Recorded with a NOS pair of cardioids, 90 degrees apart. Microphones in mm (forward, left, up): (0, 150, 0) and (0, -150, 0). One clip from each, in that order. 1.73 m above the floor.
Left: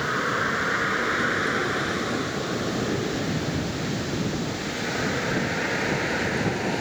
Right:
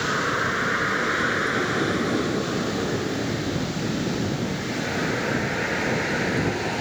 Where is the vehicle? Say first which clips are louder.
Right 1 dB; 5° right.